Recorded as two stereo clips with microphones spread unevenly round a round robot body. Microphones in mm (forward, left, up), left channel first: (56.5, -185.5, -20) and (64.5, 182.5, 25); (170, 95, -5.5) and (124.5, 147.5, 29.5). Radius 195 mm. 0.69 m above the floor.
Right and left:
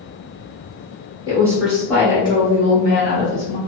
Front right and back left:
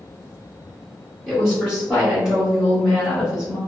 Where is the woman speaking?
5° left, 1.1 m; by 3.6 s 115° right, 1.3 m.